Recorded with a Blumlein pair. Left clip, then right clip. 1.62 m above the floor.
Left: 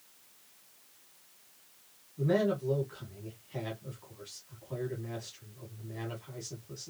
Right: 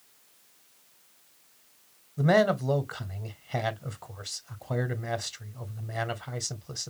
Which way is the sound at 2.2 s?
50° right.